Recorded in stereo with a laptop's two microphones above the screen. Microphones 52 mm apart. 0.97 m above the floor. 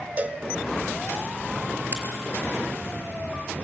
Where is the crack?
40° right (ahead or behind), 5.5 m.